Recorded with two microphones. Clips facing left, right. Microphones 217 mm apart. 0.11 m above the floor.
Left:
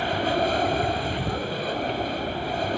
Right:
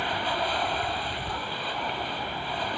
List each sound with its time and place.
0.0 s an aircraft: 45° left (ahead or behind)